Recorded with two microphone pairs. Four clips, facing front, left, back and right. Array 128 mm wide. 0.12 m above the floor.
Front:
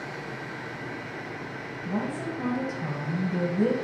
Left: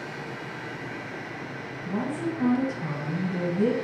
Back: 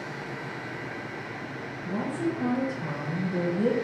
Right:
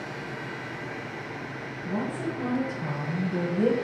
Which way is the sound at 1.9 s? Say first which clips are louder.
Left 1 dB, back 2 dB; 30° right.